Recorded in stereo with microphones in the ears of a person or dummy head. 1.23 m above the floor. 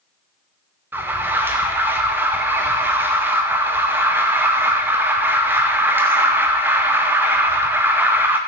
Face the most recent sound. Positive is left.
turn(degrees=-10)  # may be behind; listen again after turning